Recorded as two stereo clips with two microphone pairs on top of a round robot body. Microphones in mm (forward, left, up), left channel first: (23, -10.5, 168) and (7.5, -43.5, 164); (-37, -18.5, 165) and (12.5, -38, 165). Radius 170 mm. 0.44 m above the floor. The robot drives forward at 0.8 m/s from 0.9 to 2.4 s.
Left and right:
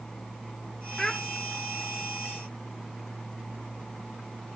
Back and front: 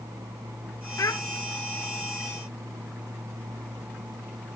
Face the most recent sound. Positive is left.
turn(degrees=170)